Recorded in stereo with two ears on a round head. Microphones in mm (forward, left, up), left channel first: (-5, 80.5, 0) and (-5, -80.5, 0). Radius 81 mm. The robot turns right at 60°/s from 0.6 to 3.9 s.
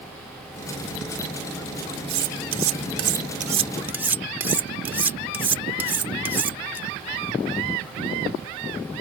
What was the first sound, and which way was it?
Cutlery clinking, 60° right (ahead or behind).